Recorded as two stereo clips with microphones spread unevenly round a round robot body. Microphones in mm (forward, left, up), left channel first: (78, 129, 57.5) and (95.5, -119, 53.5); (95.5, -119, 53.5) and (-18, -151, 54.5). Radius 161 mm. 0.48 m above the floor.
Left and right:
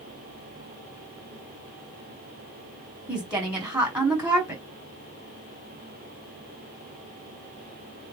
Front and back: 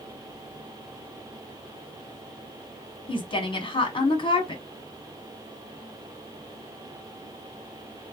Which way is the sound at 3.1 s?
5° right.